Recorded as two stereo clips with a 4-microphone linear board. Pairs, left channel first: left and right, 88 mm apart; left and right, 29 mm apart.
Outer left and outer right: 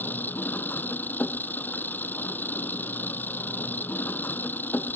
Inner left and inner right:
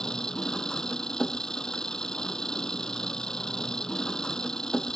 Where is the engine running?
20° left (ahead or behind).